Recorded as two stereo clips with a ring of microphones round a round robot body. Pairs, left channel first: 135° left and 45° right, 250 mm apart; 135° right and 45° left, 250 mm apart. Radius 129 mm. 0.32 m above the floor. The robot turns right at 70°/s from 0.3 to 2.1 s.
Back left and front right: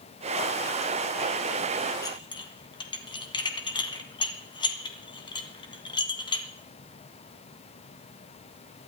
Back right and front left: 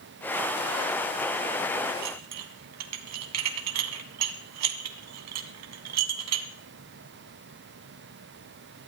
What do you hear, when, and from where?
2.0 s dishes clattering: 60° left, 1.8 m; by 6.5 s 65° left, 1.8 m